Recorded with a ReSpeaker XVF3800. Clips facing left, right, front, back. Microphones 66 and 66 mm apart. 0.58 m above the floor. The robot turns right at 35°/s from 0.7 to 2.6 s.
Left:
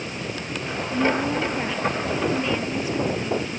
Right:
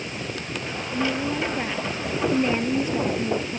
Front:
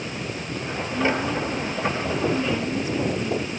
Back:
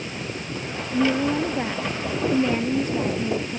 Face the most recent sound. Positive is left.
turn(degrees=-135)